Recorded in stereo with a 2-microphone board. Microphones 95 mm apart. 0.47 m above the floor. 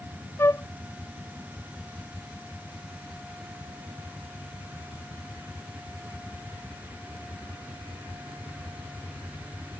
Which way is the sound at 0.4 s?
25° left (ahead or behind).